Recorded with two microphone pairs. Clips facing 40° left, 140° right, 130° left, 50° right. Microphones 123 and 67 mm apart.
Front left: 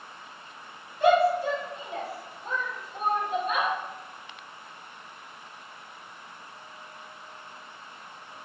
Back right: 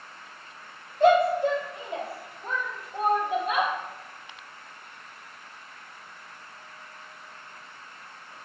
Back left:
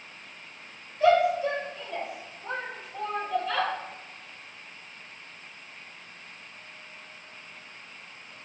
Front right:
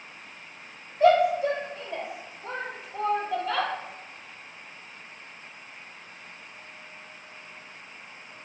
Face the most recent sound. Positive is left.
turn(degrees=-130)